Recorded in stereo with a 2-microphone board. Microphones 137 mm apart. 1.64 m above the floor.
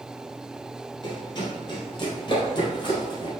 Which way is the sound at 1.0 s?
40° left (ahead or behind).